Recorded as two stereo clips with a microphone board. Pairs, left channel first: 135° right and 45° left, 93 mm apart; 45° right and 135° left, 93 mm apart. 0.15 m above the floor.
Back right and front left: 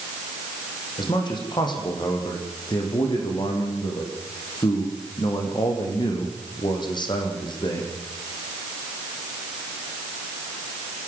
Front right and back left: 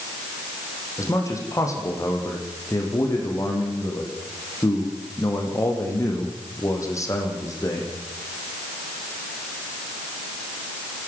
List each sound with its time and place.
1.0 s a man speaking: 100° right, 6 m